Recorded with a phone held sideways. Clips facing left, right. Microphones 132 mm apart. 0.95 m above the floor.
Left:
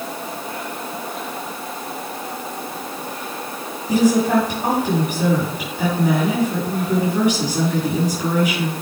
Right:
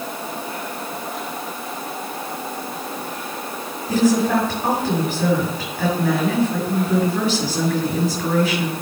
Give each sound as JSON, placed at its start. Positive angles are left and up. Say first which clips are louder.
{"t": 3.9, "sound": "a woman speaking", "louder": "left 1 dB", "side_deg": 10, "distance_m": 6.5}